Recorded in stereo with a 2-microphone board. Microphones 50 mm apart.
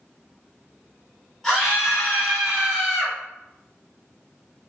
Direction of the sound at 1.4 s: 10° left (ahead or behind).